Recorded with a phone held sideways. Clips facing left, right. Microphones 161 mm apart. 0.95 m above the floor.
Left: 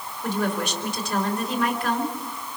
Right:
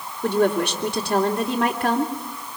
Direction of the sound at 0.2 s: 70° right (ahead or behind).